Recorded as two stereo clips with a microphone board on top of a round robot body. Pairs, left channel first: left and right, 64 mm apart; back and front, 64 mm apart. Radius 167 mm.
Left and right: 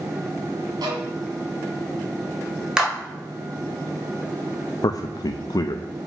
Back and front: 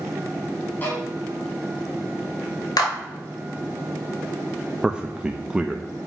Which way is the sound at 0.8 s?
115° right.